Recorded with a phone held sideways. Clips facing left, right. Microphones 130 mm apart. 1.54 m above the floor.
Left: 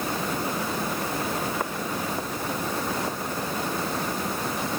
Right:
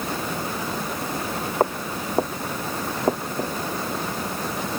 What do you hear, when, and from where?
1.6 s footsteps: 45° right (ahead or behind); by 3.5 s 50° right (ahead or behind)